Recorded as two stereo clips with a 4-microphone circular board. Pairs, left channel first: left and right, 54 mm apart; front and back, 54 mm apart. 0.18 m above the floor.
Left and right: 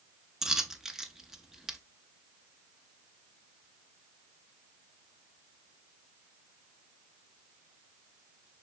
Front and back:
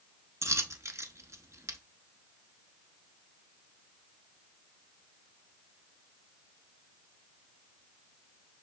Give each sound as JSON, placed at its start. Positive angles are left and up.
{"t": 0.4, "sound": "a dropped coin", "azimuth_deg": -170, "distance_m": 0.6}